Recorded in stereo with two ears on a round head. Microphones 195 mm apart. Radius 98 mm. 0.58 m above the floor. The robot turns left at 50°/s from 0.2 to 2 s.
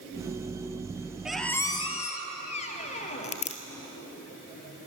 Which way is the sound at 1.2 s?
5° right (ahead or behind).